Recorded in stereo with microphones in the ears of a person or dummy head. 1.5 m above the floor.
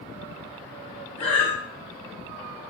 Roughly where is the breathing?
Left.